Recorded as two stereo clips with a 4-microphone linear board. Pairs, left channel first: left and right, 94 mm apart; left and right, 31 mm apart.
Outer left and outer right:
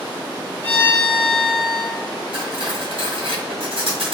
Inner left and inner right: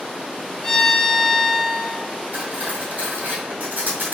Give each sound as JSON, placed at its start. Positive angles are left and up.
{"t": 0.6, "sound": "a violin", "side_deg": 15, "distance_m": 0.9}
{"t": 2.3, "sound": "cutlery clinking", "side_deg": -70, "distance_m": 1.7}